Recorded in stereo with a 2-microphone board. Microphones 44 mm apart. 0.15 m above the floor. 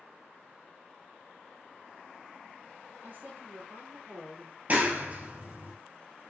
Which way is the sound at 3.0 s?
40° right (ahead or behind).